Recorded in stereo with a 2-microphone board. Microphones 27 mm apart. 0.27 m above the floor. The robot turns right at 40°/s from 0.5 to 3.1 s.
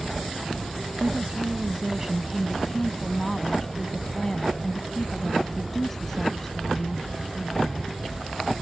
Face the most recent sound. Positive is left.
turn(degrees=20)